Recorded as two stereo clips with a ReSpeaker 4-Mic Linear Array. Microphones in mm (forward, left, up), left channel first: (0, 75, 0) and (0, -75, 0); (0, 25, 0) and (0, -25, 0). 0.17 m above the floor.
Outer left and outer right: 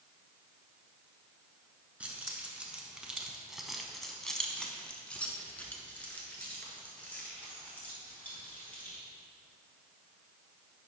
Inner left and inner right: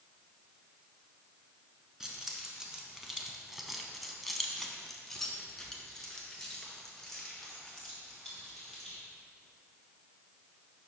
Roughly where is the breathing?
I don't hear breathing.